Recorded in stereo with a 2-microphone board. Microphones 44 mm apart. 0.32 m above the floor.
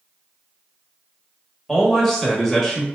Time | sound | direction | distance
1.7 | a man speaking | 10° left (ahead or behind) | 0.9 m